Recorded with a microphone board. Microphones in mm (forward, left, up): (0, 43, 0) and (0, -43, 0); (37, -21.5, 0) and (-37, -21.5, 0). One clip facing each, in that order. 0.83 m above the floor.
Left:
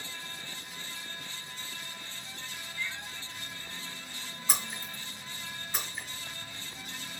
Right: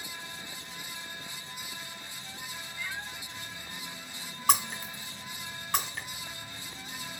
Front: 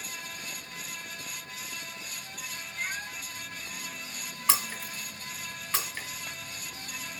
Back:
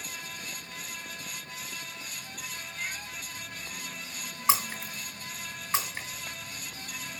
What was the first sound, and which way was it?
A cat meowing, 55° right.